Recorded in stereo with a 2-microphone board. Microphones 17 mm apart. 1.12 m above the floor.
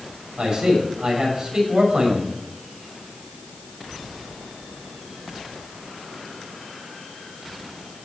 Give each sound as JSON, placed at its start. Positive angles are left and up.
{"t": 0.4, "sound": "a man speaking", "side_deg": -65, "distance_m": 6.5}